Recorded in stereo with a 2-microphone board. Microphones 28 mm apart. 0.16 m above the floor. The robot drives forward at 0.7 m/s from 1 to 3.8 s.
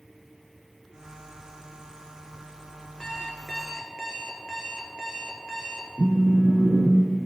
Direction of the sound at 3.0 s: 20° left (ahead or behind).